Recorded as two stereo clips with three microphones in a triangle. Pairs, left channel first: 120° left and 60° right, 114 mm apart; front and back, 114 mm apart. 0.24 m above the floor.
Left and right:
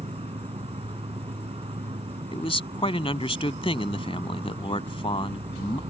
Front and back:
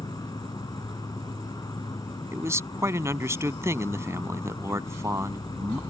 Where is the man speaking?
120° left.